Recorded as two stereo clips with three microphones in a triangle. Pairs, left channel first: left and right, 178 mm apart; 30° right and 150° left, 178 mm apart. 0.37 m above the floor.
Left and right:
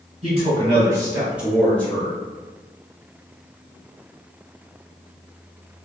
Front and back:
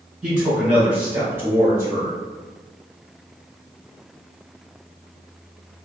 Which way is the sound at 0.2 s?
125° right.